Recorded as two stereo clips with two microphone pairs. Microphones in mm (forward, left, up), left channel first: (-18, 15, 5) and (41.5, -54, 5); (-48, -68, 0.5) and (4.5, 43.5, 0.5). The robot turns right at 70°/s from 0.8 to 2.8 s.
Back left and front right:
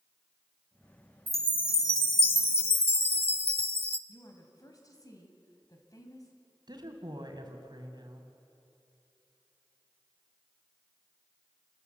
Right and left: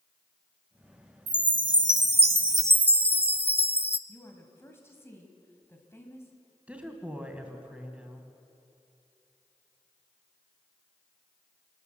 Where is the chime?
35° left, 0.6 m; by 4.0 s 145° left, 0.6 m.